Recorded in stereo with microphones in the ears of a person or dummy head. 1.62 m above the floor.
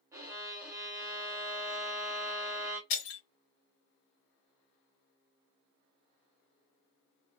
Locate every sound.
0.1 s a violin: 10° right (ahead or behind), 1.0 m
2.9 s breaking glass: 60° left (ahead or behind), 1.7 m